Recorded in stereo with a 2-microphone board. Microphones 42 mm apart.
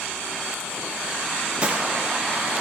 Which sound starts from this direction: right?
A gunshot, at 1.6 s.